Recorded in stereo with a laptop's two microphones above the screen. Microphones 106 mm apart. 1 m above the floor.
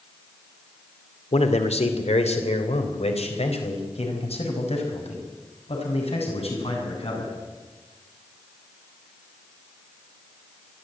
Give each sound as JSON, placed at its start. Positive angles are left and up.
{"t": 1.3, "sound": "a man speaking", "side_deg": 85, "distance_m": 2.5}